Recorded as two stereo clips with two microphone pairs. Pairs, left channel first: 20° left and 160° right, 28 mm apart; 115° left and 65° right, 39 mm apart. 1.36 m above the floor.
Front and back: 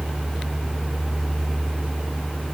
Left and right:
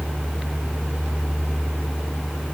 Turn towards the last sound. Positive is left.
No sound to turn to.